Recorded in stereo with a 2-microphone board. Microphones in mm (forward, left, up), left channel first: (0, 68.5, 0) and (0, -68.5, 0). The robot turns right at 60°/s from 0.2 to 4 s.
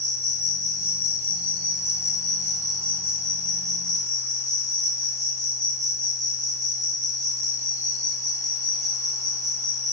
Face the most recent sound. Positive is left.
turn(degrees=120)